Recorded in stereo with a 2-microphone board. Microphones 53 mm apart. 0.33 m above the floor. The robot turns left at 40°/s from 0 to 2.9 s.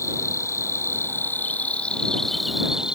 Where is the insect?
95° left; by 3.0 s 20° right.